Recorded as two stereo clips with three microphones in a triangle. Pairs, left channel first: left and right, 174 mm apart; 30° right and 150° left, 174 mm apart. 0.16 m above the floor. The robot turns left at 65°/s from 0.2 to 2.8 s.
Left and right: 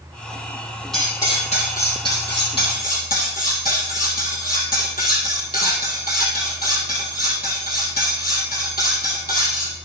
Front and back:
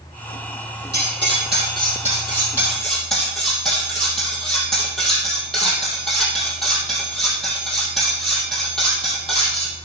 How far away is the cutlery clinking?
About 3 m.